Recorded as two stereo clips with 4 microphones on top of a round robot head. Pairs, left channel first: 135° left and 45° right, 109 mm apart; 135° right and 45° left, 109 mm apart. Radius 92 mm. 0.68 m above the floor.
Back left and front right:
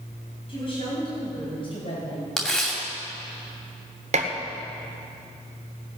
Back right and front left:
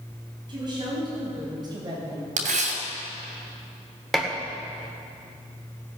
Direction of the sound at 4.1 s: 45° right.